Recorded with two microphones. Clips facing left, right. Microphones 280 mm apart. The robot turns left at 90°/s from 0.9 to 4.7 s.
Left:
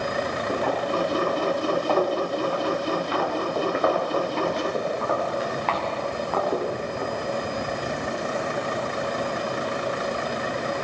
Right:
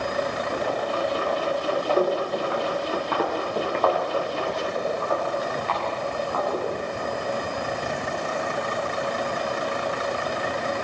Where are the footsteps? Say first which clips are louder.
Left 2 dB; 75° left (ahead or behind), 6 m.